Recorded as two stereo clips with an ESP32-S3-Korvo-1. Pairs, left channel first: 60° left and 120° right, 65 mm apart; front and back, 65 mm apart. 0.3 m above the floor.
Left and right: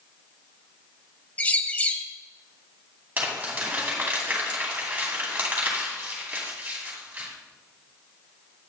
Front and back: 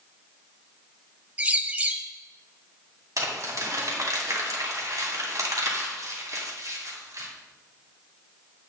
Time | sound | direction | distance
1.4 | a bird | 120° left | 0.7 m
3.2 | crumpling | straight behind | 2.5 m